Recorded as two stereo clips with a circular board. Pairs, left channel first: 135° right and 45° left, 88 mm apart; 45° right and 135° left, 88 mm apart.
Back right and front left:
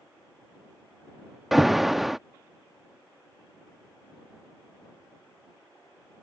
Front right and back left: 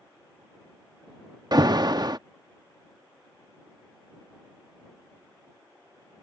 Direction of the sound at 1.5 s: 130° left.